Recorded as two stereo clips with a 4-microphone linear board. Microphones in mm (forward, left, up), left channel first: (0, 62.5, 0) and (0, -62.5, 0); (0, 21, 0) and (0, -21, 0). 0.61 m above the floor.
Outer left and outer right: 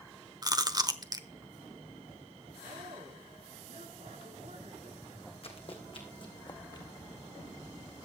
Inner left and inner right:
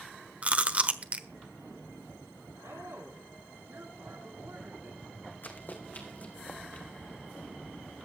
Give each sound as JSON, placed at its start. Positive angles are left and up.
{"t": 0.4, "sound": "chewing", "side_deg": -30, "distance_m": 1.1}
{"t": 2.6, "sound": "a woman speaking", "side_deg": -75, "distance_m": 7.0}
{"t": 5.4, "sound": "running footsteps", "side_deg": 50, "distance_m": 2.0}